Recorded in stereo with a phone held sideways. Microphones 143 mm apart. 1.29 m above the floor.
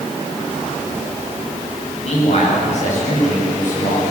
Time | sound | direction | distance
2.0 | a man speaking | 50° left (ahead or behind) | 9.5 m